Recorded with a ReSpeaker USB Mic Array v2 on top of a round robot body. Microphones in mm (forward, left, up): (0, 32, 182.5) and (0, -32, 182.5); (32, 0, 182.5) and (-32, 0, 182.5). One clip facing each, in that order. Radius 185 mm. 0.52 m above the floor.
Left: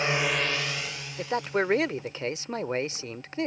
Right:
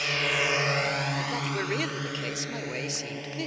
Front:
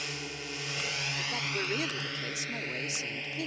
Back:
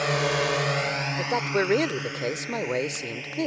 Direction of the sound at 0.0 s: 150° left.